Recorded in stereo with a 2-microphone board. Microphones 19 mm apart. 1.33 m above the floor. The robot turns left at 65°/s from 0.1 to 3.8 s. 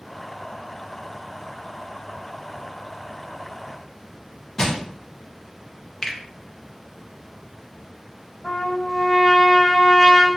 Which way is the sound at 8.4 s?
40° left (ahead or behind).